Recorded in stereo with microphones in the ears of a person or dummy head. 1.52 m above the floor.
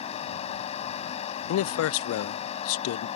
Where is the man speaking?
75° left (ahead or behind).